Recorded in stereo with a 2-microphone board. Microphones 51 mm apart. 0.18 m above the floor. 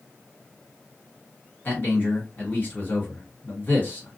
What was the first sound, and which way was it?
A man speaking, 40° left (ahead or behind).